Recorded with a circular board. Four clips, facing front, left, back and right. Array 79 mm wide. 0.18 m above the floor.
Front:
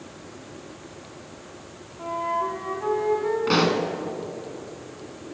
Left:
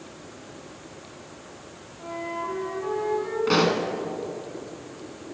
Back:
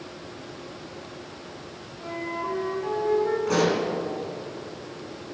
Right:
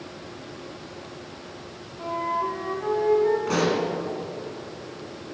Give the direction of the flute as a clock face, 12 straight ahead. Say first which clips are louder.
Right 5 dB, front 6 dB; 1 o'clock.